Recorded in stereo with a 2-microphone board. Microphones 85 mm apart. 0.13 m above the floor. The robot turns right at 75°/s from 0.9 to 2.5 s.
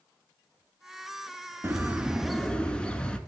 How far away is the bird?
About 0.5 m.